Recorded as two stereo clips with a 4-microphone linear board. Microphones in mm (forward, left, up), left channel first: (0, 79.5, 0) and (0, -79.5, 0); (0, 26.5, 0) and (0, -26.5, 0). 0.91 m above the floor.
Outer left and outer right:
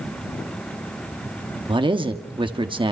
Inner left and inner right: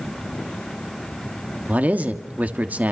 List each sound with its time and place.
1.7 s a man speaking: 30° right (ahead or behind), 1.5 m